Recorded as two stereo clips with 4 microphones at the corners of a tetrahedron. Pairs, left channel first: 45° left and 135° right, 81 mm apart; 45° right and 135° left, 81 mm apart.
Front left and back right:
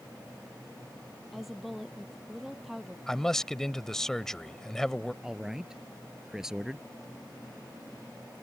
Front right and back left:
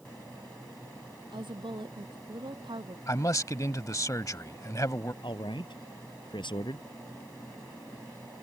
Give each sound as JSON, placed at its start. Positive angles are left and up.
{"t": 1.3, "sound": "a woman speaking", "azimuth_deg": 135}
{"t": 3.1, "sound": "a man speaking", "azimuth_deg": -35}
{"t": 5.2, "sound": "a man speaking", "azimuth_deg": -50}